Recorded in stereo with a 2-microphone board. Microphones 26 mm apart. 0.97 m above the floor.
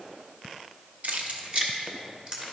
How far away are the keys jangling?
About 1.0 m.